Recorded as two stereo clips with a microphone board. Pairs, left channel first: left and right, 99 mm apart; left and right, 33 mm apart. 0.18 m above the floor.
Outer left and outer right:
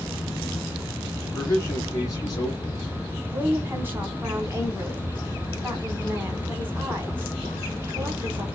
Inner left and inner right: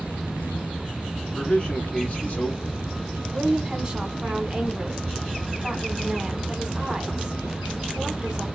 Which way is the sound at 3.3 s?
20° right (ahead or behind).